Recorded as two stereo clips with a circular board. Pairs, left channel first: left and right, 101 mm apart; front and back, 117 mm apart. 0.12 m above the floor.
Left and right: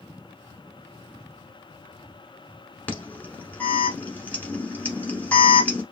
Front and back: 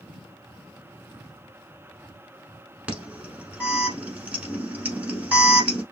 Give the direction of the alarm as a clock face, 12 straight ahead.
8 o'clock.